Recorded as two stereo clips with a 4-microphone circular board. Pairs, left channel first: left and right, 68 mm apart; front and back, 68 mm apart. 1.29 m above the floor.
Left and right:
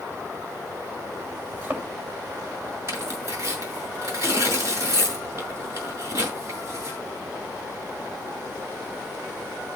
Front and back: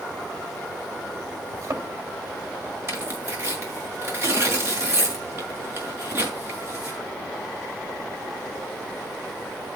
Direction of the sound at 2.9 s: 130° right.